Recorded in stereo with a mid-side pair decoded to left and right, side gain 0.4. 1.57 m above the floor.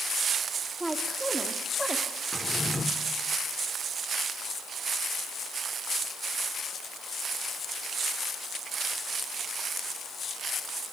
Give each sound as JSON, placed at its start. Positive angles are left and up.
{"t": 0.8, "sound": "a woman speaking", "azimuth_deg": -15, "distance_m": 3.5}
{"t": 2.3, "sound": "a drawer", "azimuth_deg": 20, "distance_m": 2.5}